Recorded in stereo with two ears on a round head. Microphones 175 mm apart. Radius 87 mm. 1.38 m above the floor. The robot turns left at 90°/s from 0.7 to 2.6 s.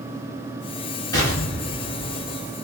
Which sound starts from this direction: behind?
An explosion, at 1.1 s.